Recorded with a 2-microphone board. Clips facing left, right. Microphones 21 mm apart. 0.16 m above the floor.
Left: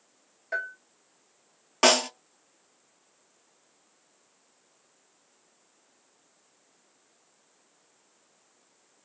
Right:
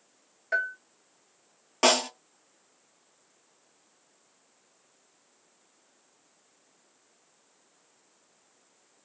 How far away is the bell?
About 0.7 m.